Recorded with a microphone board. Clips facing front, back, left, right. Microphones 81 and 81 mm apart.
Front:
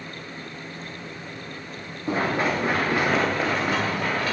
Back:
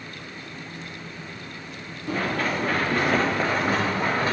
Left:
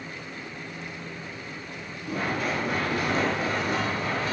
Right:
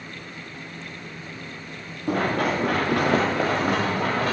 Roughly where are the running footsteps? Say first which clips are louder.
Front 2 dB, right 6 dB; ahead right.